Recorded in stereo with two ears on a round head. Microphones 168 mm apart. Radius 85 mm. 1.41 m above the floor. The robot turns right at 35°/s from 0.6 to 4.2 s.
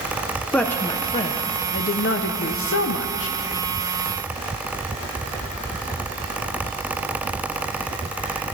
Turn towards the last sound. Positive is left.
turn(degrees=135)